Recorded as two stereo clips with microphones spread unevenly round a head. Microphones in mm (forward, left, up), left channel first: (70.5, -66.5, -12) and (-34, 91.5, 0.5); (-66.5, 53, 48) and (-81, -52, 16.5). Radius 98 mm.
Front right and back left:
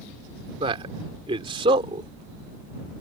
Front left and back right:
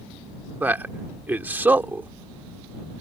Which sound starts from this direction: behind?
A man speaking, at 0.6 s.